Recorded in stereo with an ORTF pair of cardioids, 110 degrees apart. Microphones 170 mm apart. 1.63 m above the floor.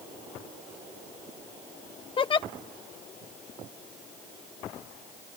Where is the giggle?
30° left.